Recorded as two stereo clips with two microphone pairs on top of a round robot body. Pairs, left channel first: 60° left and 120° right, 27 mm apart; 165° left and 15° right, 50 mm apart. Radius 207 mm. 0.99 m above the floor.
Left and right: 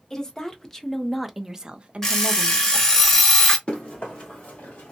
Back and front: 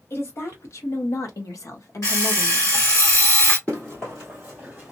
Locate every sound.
0.1 s a woman speaking: 125° left, 1.1 m; by 2.8 s 135° right, 0.7 m
2.0 s an alarm clock: 130° left, 1.1 m
3.7 s running footsteps: 110° left, 1.5 m; by 4.9 s 70° left, 1.6 m